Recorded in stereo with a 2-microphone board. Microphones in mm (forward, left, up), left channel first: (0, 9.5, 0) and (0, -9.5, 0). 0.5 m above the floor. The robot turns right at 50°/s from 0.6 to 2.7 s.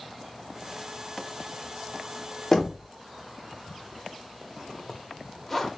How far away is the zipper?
About 0.7 m.